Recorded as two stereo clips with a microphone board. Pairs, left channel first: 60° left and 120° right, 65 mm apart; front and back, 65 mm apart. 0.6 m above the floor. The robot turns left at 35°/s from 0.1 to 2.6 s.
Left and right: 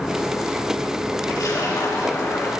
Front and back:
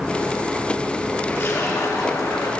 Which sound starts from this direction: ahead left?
A splash, at 1.3 s.